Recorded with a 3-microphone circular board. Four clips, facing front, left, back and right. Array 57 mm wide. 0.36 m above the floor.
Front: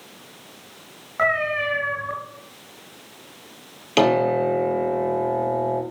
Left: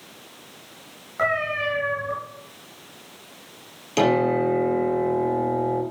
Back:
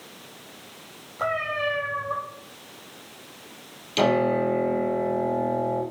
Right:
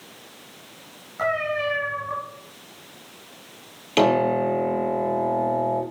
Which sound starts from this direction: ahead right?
A piano, at 4.0 s.